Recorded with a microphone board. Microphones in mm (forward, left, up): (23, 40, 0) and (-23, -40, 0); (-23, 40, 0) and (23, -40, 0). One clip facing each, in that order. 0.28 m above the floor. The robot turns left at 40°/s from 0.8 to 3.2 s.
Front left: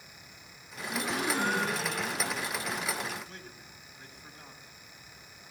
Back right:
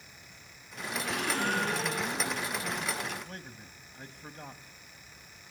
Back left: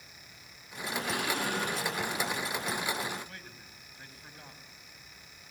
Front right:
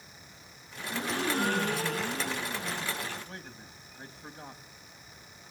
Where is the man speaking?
115° right, 1.5 m.